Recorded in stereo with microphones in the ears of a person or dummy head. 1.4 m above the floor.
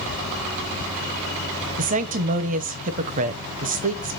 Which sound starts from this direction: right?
A woman speaking, at 1.8 s.